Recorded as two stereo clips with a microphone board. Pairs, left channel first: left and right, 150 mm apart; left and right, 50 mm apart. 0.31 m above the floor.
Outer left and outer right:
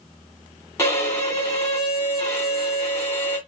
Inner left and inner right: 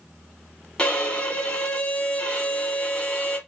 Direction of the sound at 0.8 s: 20° left (ahead or behind).